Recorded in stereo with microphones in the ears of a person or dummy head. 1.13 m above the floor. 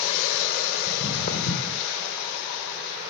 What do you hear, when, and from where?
0.9 s footsteps: 60° left (ahead or behind), 3 m